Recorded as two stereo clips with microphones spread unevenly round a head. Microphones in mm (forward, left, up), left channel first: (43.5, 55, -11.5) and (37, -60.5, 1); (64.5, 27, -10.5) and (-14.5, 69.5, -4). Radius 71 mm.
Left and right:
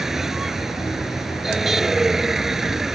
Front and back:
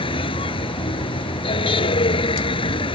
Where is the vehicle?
5° right.